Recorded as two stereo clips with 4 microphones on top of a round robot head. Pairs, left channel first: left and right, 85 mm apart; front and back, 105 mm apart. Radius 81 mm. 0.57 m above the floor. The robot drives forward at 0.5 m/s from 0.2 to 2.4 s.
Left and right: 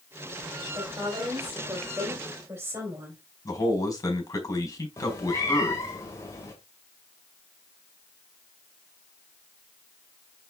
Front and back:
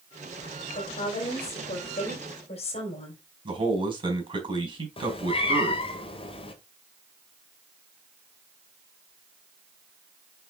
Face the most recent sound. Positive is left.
turn(degrees=30)